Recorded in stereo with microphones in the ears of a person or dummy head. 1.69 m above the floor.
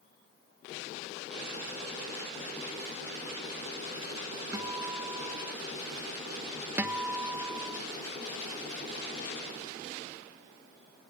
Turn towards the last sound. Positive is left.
turn(degrees=-10)  # may be behind; listen again after turning